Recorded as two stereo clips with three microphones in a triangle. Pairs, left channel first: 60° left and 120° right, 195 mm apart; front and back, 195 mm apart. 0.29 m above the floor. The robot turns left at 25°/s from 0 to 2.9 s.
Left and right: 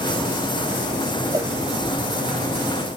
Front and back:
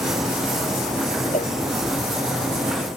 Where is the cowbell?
45° right; by 1.5 s 50° right.